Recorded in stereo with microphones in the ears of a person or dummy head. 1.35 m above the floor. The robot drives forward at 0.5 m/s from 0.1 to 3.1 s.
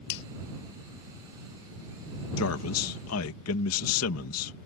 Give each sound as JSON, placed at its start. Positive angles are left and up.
{"t": 0.1, "sound": "a finger snap", "side_deg": 65}
{"t": 2.4, "sound": "a man speaking", "side_deg": 80}